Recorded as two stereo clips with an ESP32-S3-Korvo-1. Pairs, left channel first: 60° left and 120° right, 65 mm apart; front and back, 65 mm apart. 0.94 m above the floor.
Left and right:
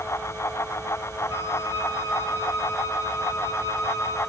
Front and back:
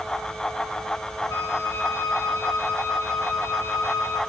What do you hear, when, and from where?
1.3 s a flute: 25° left, 3 m